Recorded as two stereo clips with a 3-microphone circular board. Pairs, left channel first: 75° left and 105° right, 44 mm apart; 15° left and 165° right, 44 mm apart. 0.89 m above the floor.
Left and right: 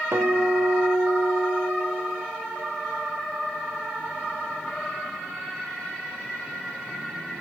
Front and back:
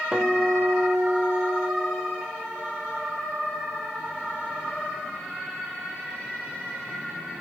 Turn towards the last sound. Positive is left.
turn(degrees=-95)